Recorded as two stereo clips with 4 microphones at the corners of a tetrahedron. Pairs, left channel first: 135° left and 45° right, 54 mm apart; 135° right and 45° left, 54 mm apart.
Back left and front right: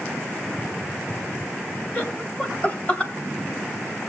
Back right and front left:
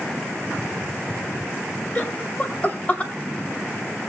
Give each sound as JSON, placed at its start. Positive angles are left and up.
{"t": 1.9, "sound": "laughter", "azimuth_deg": 180, "distance_m": 1.9}